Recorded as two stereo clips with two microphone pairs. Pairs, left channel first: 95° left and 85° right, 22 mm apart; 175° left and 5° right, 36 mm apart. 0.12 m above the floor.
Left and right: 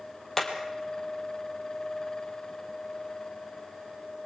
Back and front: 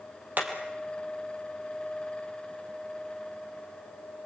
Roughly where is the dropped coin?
No dropped coin in this recording.